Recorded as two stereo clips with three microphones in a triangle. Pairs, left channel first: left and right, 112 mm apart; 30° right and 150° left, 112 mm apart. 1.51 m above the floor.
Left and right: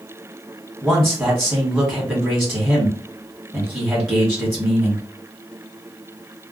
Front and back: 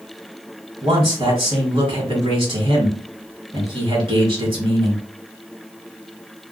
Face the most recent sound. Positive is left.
turn(degrees=180)